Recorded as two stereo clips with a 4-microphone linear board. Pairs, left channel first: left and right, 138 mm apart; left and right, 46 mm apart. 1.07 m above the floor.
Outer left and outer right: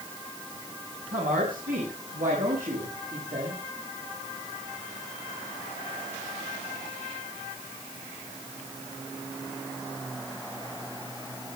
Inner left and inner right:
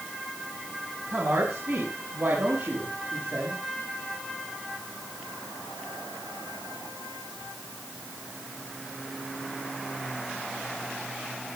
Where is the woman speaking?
80° right, 7 m; by 3.6 s 70° right (ahead or behind), 7.5 m.